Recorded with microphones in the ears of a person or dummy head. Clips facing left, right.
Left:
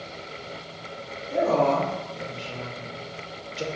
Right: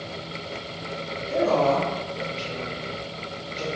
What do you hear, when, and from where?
1.3 s a woman speaking: 70° right (ahead or behind), 1.8 m; by 3.6 s 15° left (ahead or behind), 0.6 m